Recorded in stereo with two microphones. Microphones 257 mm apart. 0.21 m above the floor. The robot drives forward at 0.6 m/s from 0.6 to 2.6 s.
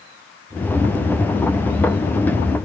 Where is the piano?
I don't hear a piano.